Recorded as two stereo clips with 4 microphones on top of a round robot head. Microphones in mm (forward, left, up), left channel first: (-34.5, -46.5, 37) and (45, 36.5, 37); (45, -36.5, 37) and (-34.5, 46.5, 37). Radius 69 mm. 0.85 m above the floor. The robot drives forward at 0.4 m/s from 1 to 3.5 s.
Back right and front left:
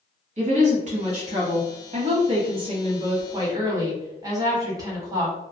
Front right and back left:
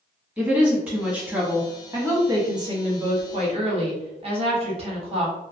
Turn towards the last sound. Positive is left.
turn(degrees=105)